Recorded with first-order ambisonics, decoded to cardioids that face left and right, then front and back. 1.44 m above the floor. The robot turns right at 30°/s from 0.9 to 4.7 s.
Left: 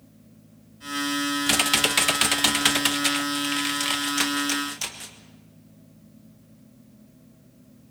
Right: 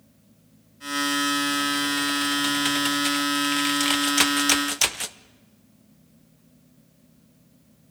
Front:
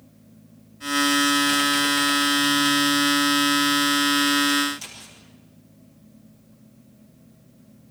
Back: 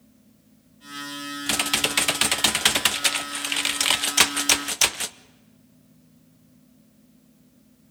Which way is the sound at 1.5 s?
115° left.